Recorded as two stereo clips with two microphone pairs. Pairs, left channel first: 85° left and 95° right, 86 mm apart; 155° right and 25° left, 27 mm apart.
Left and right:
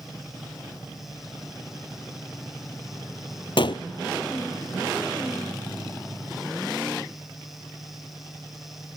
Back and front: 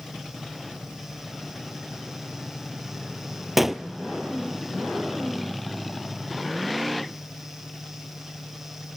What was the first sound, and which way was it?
A gunshot, 105° left.